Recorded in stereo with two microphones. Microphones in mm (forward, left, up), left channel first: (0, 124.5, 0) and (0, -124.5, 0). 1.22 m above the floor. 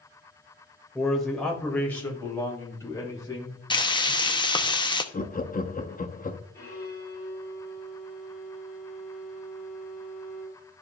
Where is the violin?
10° left (ahead or behind), 4.5 m.